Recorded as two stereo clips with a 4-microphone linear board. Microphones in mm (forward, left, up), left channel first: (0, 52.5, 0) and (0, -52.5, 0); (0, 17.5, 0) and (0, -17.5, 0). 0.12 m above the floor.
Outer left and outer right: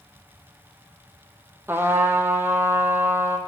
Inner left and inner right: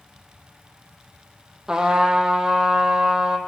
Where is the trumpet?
20° right (ahead or behind), 0.6 m.